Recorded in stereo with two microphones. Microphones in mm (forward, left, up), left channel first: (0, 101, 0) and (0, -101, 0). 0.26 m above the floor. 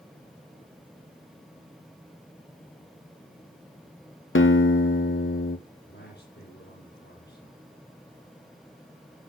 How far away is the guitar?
About 1.0 m.